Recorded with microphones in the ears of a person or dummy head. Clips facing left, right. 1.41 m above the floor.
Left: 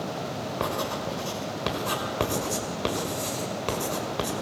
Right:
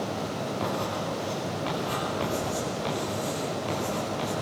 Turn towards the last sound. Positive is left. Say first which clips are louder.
# left 2 dB
turn(degrees=65)  # may be behind; listen again after turning